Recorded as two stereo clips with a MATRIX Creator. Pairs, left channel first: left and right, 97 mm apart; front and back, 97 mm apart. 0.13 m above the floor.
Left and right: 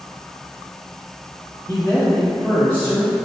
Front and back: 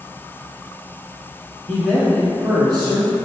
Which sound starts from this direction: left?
A man speaking, at 1.7 s.